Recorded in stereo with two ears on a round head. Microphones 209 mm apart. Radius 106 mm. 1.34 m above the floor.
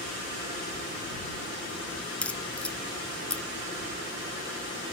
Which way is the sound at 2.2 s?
5° left (ahead or behind).